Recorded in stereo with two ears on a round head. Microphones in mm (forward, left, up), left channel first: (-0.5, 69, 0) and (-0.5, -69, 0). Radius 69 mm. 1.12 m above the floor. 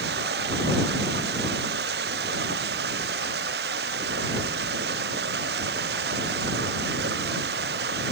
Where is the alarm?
No alarm in this recording.